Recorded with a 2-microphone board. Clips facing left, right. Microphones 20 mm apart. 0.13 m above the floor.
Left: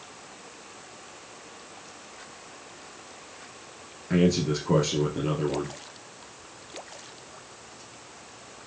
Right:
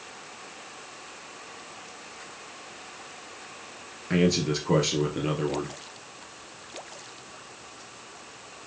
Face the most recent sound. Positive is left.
turn(degrees=-20)  # may be behind; listen again after turning